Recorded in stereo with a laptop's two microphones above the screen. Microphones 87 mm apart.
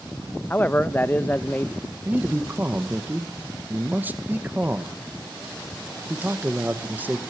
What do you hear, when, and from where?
0.5 s a man speaking: 20° left (ahead or behind), 0.5 m
2.0 s a man speaking: 20° right (ahead or behind), 1.1 m